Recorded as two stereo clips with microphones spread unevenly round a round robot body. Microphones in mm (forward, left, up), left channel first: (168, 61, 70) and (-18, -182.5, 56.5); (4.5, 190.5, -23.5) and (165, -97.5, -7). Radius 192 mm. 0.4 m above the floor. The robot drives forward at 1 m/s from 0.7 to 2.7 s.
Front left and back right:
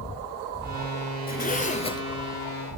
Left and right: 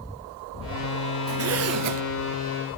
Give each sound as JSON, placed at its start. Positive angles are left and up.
{"t": 1.3, "sound": "a zipper", "azimuth_deg": -10, "distance_m": 1.2}